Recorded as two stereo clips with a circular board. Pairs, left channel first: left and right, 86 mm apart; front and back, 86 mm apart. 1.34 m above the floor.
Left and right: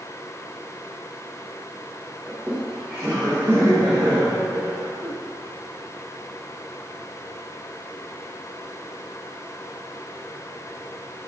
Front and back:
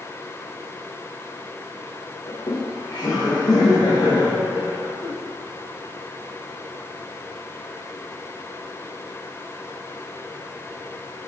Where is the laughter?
5° right, 0.8 m; by 5.1 s 35° right, 3 m.